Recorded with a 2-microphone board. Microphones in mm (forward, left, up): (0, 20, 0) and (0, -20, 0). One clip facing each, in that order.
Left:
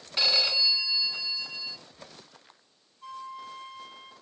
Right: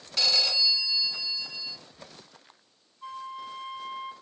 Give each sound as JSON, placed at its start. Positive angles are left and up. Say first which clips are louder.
{"t": 0.2, "sound": "a phone ringing", "louder": "even", "side_deg": 20, "distance_m": 1.0}
{"t": 3.0, "sound": "a flute", "louder": "right 2 dB", "side_deg": -20, "distance_m": 1.5}